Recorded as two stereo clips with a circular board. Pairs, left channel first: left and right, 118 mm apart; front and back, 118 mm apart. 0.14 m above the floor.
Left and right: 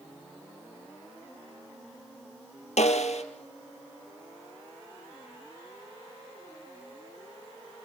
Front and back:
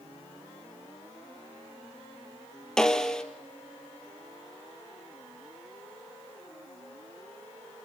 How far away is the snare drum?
About 1.9 m.